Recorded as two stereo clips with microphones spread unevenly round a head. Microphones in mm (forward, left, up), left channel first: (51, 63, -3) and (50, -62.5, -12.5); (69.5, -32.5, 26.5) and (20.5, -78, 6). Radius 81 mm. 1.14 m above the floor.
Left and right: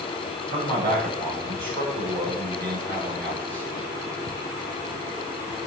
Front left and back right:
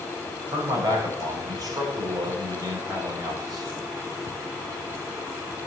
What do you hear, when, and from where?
0.5 s a man speaking: 110° right, 4.5 m